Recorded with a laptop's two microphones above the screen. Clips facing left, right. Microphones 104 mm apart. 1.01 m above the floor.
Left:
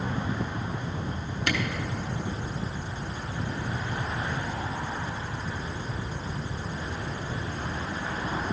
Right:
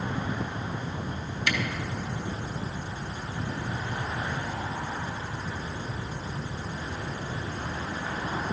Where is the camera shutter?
45° left (ahead or behind), 3 m.